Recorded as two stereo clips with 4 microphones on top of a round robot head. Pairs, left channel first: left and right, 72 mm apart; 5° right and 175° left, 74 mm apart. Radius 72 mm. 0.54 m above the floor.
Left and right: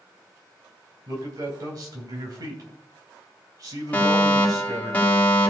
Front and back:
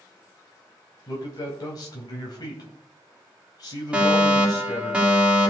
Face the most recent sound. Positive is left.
turn(degrees=120)